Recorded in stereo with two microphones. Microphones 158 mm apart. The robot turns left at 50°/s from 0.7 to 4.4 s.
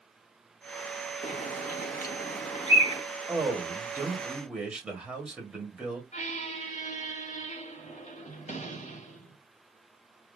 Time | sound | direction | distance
1.2 | a bird | 50° left (ahead or behind) | 0.9 m
3.3 | a man speaking | 20° right (ahead or behind) | 1.5 m
6.1 | a squeak | 50° left (ahead or behind) | 1.0 m